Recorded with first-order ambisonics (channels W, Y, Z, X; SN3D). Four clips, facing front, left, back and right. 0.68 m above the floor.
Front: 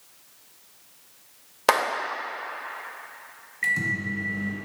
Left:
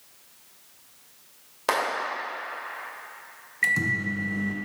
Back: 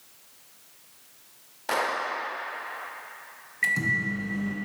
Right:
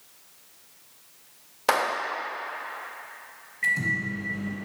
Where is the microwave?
105° left, 0.8 m.